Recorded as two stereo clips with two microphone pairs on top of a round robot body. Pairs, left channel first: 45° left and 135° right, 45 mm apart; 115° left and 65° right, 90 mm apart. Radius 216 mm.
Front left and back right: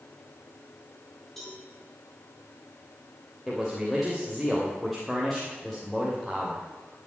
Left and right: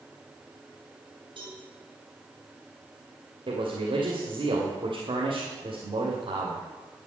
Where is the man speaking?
40° right, 3 m.